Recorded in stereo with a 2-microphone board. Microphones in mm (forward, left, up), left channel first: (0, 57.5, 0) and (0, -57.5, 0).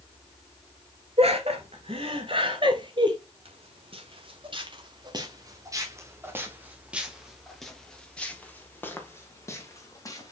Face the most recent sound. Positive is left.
turn(degrees=30)  # may be behind; listen again after turning